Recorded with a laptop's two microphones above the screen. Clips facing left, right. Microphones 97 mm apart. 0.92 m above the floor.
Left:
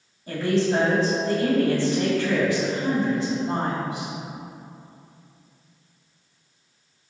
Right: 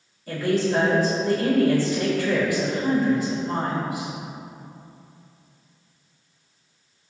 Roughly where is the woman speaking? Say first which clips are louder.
Even; left.